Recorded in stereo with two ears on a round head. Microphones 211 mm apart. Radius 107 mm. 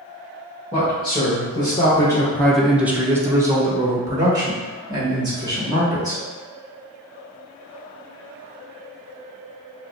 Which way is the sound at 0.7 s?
20° left (ahead or behind).